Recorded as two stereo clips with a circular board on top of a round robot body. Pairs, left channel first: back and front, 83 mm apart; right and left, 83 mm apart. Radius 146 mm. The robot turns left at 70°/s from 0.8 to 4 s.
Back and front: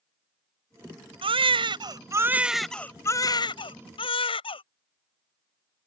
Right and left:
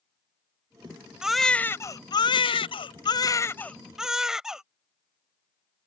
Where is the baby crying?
10° left; by 4.6 s 175° left.